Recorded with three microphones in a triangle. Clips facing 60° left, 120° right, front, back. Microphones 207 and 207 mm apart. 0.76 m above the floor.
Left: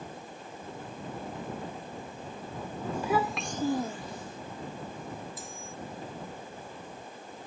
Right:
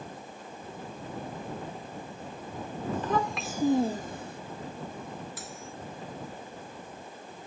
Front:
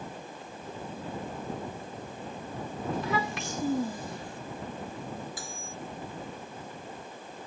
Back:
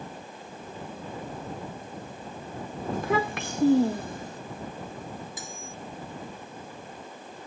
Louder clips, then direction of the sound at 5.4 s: Right 1 dB, back 1 dB; 110° right.